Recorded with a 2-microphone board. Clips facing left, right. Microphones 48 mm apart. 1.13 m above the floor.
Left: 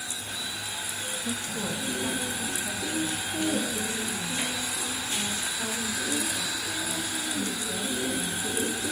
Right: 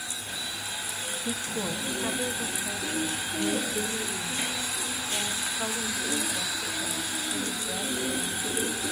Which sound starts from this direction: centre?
A woman speaking, at 1.2 s.